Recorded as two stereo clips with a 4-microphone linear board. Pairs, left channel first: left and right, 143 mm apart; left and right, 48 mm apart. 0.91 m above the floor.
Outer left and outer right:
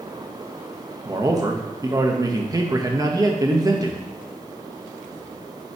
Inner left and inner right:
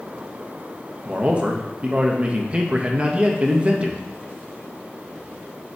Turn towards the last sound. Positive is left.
turn(degrees=-25)  # may be behind; listen again after turning